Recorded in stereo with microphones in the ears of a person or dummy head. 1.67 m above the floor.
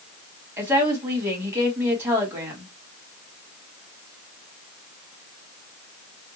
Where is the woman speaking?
15° right (ahead or behind), 1.6 m.